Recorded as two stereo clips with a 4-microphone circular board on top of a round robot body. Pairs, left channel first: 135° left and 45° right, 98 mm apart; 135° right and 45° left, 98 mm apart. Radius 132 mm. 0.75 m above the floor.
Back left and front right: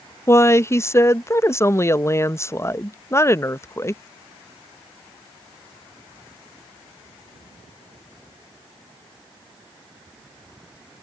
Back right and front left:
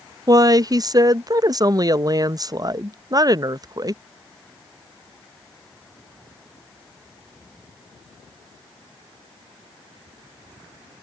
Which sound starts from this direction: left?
A woman speaking, at 0.3 s.